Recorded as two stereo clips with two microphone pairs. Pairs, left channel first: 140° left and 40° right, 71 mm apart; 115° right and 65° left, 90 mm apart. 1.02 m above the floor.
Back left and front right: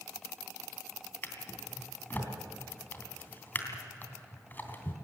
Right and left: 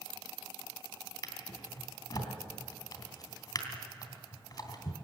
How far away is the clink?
No clink in this recording.